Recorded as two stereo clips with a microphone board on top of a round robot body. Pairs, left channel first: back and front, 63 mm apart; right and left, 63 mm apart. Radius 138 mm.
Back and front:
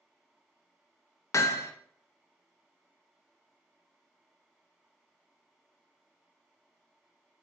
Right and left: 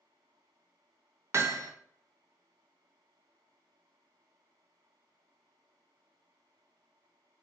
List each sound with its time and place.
1.3 s hammering: 140° left, 0.5 m